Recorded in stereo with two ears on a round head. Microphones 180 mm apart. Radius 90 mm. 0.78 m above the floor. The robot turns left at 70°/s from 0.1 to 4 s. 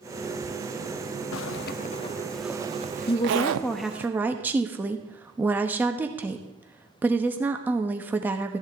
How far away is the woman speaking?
About 1.0 m.